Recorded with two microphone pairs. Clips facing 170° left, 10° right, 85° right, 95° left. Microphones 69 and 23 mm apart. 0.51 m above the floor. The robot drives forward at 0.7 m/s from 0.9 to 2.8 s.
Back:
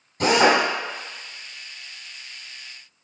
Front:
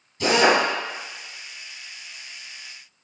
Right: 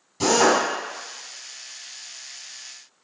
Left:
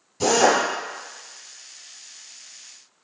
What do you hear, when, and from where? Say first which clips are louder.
0.2 s a drill: back 1 dB, even; 155° right, 1.4 m